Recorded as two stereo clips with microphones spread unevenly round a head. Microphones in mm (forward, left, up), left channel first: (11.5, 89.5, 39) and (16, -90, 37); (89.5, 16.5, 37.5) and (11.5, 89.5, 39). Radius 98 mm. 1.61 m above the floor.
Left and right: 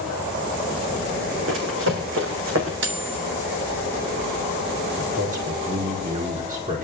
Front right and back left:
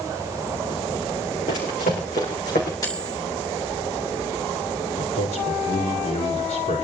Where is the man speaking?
40° right, 6 m.